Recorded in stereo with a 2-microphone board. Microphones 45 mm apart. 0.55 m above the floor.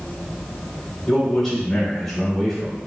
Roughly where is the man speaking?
Centre.